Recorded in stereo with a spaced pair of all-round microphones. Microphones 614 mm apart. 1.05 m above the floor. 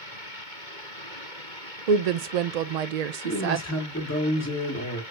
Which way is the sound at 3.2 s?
25° left (ahead or behind).